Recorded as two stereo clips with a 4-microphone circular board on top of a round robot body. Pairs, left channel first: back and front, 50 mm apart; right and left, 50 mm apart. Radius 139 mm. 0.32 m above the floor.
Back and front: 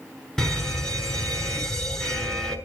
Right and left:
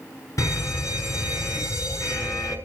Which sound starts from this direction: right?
A fire alarm, at 0.4 s.